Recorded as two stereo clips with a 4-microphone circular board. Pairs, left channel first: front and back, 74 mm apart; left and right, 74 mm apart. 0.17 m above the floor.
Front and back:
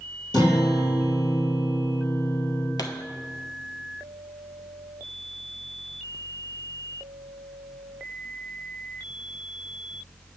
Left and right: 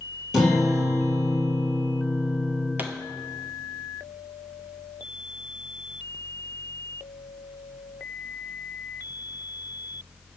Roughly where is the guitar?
Ahead.